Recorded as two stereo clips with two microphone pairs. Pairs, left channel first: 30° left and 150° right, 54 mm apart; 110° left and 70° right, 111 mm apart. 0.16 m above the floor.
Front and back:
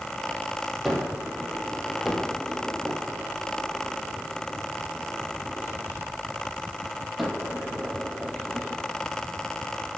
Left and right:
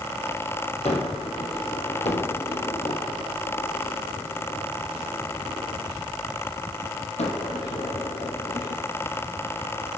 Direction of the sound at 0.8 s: 120° left.